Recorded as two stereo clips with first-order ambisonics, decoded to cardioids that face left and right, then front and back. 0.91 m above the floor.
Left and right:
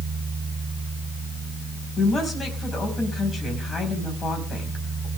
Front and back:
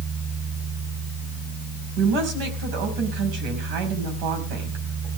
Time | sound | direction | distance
2.0 | a woman speaking | 165° left | 5 m